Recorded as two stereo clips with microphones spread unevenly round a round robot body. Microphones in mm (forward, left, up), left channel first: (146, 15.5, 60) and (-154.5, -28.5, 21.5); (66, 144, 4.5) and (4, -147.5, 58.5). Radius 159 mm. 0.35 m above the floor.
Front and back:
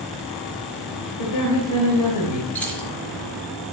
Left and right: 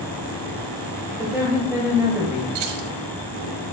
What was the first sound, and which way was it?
A woman speaking, 10° right.